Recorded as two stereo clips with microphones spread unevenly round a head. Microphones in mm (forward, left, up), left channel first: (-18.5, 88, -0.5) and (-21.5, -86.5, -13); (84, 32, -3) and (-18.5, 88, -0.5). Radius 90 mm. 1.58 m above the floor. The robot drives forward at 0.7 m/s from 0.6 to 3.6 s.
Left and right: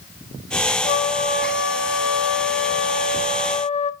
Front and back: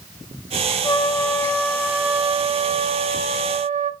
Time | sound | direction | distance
0.8 | a trumpet | 30° left | 1.2 m